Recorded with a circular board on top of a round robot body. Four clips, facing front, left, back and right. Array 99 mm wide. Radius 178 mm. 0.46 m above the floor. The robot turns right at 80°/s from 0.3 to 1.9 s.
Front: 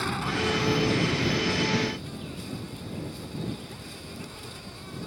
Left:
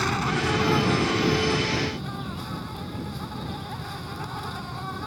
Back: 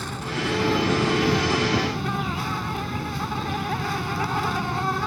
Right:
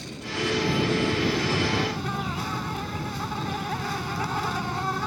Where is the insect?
80° left; by 5.1 s 155° right.